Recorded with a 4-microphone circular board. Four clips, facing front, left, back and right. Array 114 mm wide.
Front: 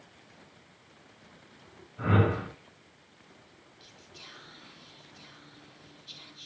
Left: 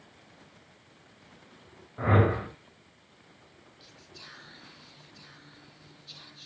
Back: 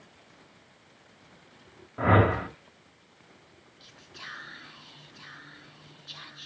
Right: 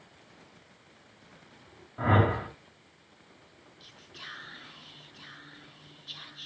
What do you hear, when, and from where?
2.0 s a whoosh: 175° left, 1.8 m
3.8 s whispering: 160° right, 2 m